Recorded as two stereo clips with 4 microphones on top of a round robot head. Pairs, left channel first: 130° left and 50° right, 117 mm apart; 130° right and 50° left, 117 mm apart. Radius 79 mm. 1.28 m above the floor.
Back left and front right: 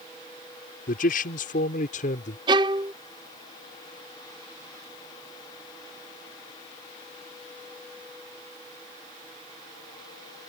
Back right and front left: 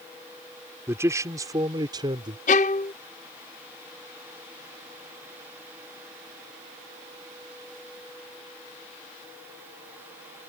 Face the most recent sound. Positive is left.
turn(degrees=-105)